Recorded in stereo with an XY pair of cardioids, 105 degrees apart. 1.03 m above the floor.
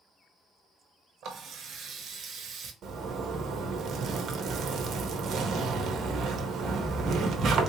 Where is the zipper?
60° right, 0.8 m.